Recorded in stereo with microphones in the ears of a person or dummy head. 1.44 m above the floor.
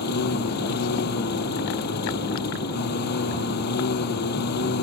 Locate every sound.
0.0 s a lawn mower: 65° left (ahead or behind)